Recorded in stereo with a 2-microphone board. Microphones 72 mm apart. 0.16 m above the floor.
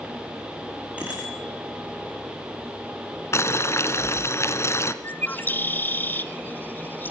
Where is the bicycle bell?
20° right (ahead or behind), 7.5 m.